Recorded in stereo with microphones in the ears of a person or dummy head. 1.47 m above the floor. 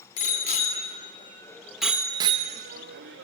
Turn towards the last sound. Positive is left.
turn(degrees=-70)  # may be behind; listen again after turning